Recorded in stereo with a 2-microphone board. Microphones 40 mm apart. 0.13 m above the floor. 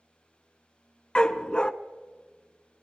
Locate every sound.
1.1 s a dog barking: 20° left (ahead or behind), 0.6 m